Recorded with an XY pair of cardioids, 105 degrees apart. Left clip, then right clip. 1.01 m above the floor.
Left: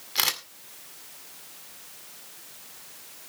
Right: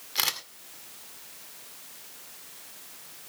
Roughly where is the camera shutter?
Ahead.